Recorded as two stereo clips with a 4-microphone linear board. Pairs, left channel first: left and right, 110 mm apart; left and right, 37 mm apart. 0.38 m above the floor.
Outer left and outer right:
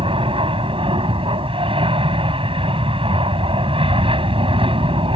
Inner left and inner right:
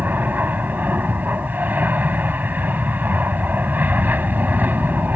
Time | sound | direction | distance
0.0 | an aircraft | 55° right (ahead or behind) | ?